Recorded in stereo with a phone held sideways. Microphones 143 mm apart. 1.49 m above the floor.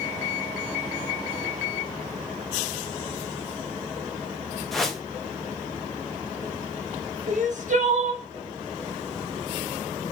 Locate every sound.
4.7 s a whoosh: centre (ahead or behind), 0.8 m
7.3 s crying: 60° right (ahead or behind), 0.9 m